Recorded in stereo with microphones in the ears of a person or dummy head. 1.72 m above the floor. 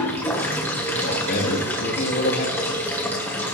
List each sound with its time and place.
0.0 s running water: 15° left (ahead or behind), 1.5 m
1.0 s a man speaking: 55° left (ahead or behind), 4 m